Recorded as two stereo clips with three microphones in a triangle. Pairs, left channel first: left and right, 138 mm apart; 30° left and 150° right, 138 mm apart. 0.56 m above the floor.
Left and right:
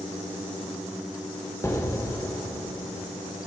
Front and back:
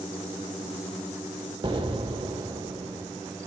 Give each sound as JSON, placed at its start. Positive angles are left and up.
{"t": 1.6, "sound": "an explosion", "azimuth_deg": 160, "distance_m": 0.8}